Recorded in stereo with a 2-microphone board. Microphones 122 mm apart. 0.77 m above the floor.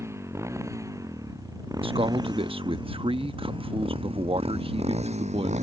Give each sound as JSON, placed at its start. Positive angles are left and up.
{"t": 0.0, "sound": "a motorcycle", "side_deg": -20}
{"t": 1.8, "sound": "a man speaking", "side_deg": -50}